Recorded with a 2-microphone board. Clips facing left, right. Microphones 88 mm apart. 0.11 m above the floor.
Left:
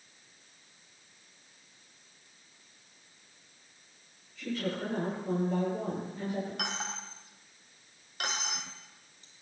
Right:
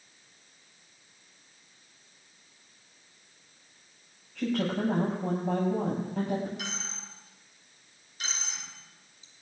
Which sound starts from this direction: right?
A woman speaking, at 4.3 s.